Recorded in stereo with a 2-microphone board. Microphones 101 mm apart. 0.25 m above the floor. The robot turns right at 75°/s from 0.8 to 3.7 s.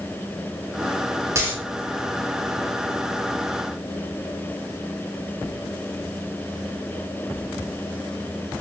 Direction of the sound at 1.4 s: 30° right (ahead or behind).